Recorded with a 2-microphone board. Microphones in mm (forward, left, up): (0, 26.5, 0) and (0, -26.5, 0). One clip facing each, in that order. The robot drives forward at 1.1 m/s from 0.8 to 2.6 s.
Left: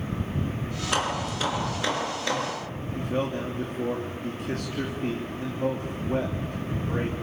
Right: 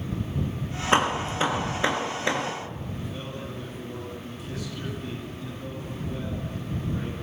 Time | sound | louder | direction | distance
0.9 | hammering | right 5 dB | 30° right (ahead or behind) | 4 m
3.0 | a man speaking | left 13 dB | 55° left (ahead or behind) | 3 m